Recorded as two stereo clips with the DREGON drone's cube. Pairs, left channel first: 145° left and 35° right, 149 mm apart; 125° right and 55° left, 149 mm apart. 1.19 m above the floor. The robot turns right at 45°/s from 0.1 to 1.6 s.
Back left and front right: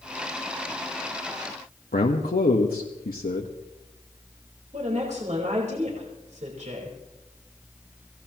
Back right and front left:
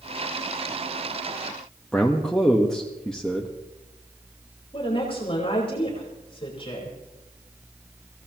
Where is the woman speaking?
70° right, 4.5 m.